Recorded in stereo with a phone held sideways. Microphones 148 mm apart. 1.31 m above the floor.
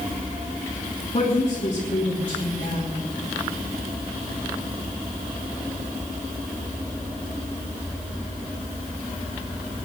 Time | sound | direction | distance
1.1 | a woman speaking | 50° left (ahead or behind) | 3 m